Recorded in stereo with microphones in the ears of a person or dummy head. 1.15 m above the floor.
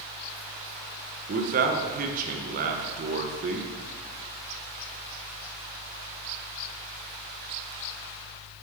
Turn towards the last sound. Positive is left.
turn(degrees=-40)  # may be behind; listen again after turning